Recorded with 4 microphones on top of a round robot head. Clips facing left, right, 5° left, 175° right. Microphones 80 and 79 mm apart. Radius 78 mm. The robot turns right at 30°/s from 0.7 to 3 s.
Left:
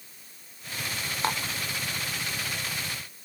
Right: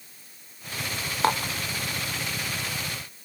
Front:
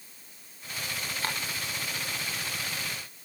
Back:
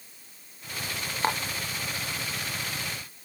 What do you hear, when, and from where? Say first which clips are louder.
1.2 s dishes clattering: right 6 dB, back 8 dB; 105° right; by 1.5 s 95° right